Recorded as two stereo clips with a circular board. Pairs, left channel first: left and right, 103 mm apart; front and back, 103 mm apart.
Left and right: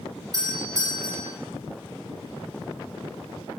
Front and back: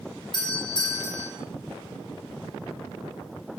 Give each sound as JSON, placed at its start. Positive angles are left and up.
{"t": 0.3, "sound": "a doorbell", "azimuth_deg": -35, "distance_m": 6.0}